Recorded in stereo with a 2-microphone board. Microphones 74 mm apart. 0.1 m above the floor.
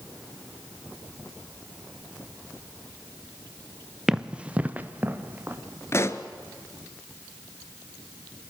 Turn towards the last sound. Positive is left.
turn(degrees=35)  # may be behind; listen again after turning